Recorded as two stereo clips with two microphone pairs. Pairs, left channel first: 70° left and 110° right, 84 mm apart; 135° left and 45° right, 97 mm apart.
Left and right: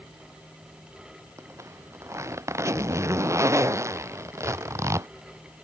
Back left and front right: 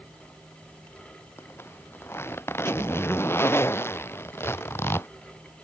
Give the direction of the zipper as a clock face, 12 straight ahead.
5 o'clock.